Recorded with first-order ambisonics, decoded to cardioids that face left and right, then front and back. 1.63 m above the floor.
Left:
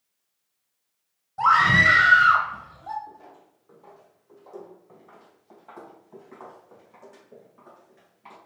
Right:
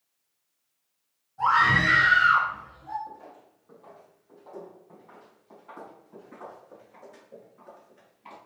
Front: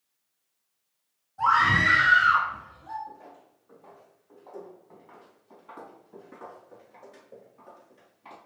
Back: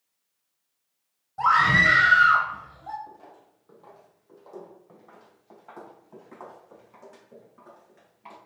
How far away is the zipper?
No zipper in this recording.